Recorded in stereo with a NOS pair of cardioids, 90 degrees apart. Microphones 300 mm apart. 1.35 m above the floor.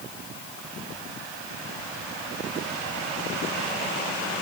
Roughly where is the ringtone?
I don't hear a ringtone.